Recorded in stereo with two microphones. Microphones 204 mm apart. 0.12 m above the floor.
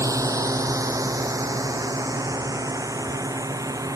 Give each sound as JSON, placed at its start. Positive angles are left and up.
{"t": 0.0, "sound": "a drone", "side_deg": -15}